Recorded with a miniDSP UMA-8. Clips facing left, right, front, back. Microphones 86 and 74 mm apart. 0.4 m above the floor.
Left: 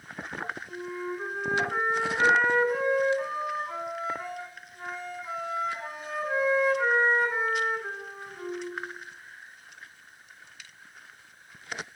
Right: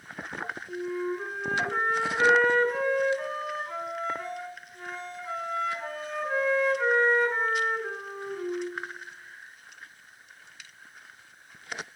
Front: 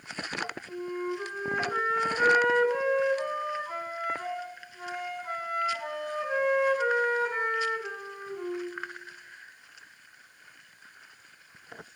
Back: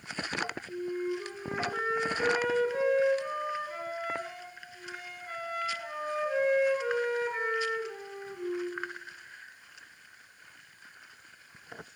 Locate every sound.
0.7 s a flute: 10° left, 5 m